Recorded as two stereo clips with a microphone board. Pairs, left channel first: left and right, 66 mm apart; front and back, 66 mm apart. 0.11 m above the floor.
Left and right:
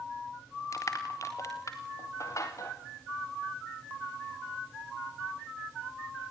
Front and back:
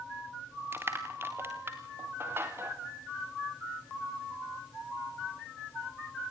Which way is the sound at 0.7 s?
125° left.